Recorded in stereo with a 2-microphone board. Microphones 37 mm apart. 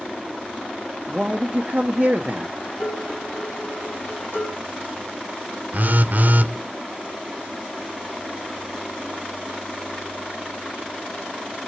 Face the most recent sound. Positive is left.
turn(degrees=-50)  # may be behind; listen again after turning